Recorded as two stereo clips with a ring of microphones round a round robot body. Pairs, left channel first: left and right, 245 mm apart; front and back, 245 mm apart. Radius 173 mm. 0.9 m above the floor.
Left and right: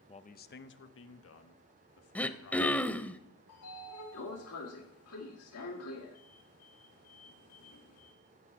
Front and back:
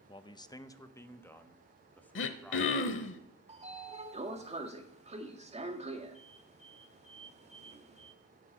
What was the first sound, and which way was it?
A man speaking, 50° left.